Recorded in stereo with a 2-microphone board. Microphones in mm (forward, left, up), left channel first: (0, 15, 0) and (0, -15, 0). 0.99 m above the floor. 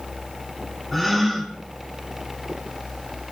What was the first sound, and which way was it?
A gasp, 5° left (ahead or behind).